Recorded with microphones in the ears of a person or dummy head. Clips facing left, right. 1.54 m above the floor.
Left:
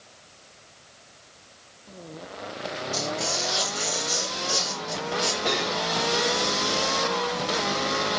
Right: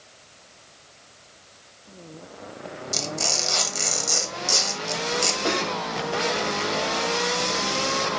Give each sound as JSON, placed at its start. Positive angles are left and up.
{"t": 2.9, "sound": "tearing paper", "side_deg": -75, "distance_m": 1.0}
{"t": 5.5, "sound": "cutlery clinking", "side_deg": -15, "distance_m": 1.9}